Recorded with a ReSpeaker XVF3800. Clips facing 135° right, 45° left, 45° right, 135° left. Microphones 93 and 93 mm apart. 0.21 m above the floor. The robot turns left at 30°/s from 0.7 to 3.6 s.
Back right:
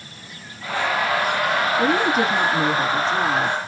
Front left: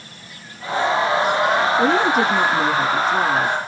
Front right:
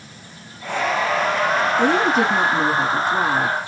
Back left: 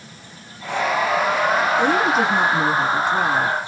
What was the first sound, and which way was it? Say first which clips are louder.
A woman speaking: front left 2 dB, front right 1 dB; 65° left.